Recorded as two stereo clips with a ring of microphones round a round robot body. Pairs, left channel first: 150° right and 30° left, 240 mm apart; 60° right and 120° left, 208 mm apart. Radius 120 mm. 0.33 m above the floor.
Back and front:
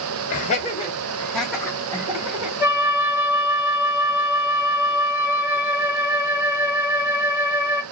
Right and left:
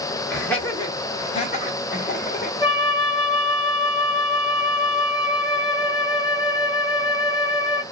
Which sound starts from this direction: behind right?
Laughter, at 0.3 s.